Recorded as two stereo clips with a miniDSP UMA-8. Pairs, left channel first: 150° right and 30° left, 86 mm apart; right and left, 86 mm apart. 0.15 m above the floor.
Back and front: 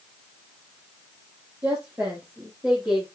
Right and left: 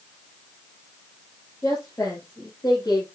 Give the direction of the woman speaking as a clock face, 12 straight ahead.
1 o'clock.